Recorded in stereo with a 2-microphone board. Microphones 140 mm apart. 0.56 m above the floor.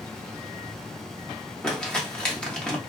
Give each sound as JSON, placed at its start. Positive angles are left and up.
{"t": 1.6, "sound": "crumpling", "side_deg": 5, "distance_m": 0.8}